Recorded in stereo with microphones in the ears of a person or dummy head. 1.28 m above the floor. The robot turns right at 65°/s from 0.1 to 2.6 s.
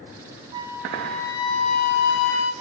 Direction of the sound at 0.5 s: 30° right.